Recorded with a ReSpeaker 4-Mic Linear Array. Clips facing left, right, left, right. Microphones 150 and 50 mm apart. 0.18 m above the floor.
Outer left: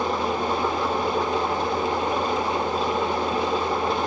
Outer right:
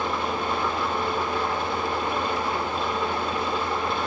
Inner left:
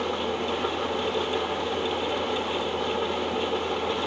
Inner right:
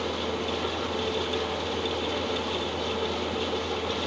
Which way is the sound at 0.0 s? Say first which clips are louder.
Outer left 3 dB, inner left 2 dB; 35° left (ahead or behind).